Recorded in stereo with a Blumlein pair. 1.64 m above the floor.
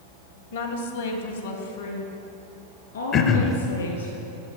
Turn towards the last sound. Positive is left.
turn(degrees=30)